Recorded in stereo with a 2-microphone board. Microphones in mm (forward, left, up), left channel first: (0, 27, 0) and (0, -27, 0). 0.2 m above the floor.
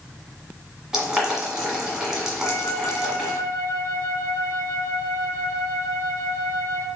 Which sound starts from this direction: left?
A flute, at 2.4 s.